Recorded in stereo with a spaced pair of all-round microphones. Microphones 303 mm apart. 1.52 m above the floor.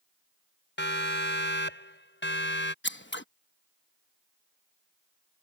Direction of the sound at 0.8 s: 40° left (ahead or behind).